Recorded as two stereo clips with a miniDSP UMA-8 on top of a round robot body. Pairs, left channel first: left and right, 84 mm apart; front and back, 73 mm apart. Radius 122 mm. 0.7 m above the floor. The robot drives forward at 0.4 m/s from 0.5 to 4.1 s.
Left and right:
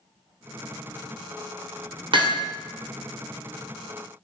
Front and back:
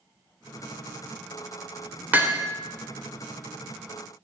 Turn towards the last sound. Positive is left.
turn(degrees=-130)